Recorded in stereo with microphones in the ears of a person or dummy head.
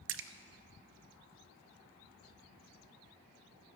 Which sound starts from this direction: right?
A splash, at 0.1 s.